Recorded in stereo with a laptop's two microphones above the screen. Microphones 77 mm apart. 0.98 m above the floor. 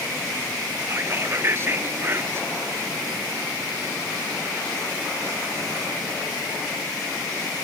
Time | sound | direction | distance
0.9 | whispering | 35° right (ahead or behind) | ?